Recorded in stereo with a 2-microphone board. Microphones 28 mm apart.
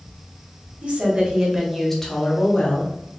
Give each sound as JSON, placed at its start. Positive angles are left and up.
{"t": 0.8, "sound": "a woman speaking", "side_deg": -45, "distance_m": 1.4}